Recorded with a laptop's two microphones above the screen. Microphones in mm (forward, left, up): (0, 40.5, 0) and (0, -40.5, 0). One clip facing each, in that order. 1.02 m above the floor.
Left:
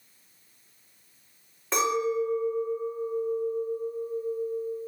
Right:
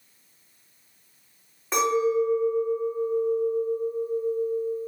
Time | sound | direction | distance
1.7 | a clink | 5° right (ahead or behind) | 1.8 m